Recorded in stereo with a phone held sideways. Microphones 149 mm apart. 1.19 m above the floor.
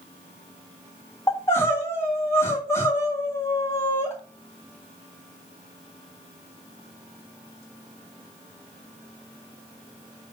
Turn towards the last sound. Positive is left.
turn(degrees=20)  # may be behind; listen again after turning